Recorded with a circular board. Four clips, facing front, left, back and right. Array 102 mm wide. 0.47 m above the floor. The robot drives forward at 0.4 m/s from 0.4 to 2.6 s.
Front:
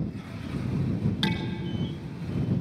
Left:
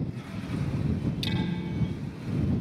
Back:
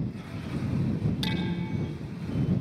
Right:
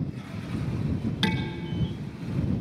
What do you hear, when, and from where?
1.2 s dishes clattering: 65° right, 3.5 m